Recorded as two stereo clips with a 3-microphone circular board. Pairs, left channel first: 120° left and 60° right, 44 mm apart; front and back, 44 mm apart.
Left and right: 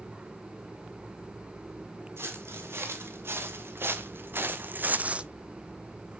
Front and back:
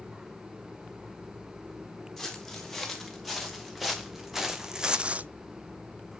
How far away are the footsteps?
About 3.5 m.